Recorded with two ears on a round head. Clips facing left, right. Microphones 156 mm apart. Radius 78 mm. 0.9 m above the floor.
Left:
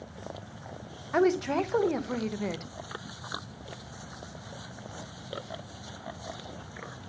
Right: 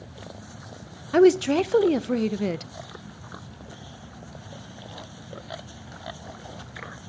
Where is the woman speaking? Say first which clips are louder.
Right 8 dB; 35° right (ahead or behind), 0.5 m.